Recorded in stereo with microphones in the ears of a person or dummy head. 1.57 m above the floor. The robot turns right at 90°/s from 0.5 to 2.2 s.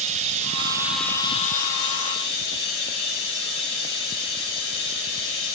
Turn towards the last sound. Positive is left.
turn(degrees=115)